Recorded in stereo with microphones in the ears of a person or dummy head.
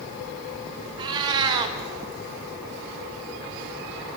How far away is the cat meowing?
About 0.7 m.